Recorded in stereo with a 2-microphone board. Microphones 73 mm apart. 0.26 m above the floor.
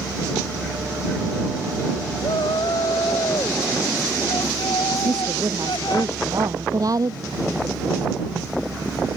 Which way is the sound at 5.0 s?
55° right (ahead or behind).